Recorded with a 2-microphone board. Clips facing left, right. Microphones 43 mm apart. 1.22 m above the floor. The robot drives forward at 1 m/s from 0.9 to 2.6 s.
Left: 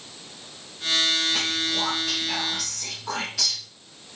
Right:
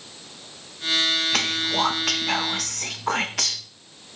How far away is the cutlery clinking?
No cutlery clinking in this recording.